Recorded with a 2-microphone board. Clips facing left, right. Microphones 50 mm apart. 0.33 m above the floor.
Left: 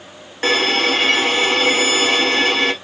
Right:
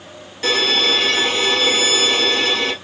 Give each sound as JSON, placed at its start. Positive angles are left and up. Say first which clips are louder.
{"t": 0.4, "sound": "a violin", "louder": "left 1 dB", "side_deg": 40, "distance_m": 0.8}